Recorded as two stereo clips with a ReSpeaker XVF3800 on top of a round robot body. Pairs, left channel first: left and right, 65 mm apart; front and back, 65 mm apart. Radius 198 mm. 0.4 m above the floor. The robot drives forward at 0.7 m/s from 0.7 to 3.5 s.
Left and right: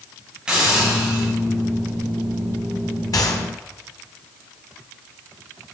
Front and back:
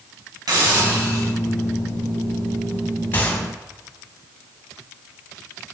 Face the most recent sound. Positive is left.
turn(degrees=70)